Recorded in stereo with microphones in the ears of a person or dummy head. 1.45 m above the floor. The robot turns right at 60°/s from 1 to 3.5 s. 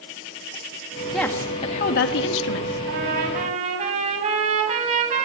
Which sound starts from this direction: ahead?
A woman speaking, at 1.1 s.